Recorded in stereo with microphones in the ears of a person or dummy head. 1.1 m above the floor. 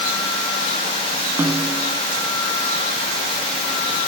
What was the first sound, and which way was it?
A snare drum, 10° right (ahead or behind).